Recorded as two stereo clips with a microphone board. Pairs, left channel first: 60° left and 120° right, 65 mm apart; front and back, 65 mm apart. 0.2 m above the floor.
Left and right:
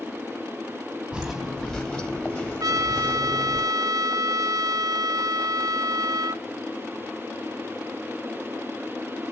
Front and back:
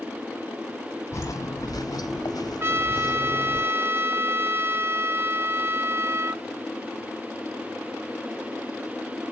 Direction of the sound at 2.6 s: 130° right.